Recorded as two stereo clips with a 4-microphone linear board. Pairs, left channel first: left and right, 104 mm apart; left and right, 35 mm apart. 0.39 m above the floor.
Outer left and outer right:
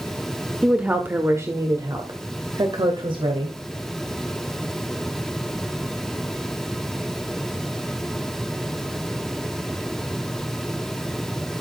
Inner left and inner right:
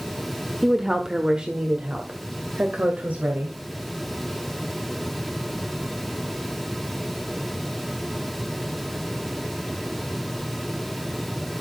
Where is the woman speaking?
10° right (ahead or behind), 1.2 m; by 3.5 s 55° right (ahead or behind), 2 m.